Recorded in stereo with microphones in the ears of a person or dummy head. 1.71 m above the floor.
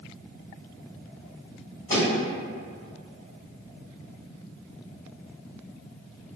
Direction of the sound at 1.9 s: 20° left (ahead or behind).